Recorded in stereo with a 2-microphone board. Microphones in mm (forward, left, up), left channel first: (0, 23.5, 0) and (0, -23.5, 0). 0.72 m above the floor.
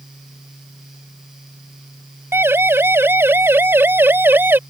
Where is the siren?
60° right (ahead or behind); by 4.6 s 50° right (ahead or behind).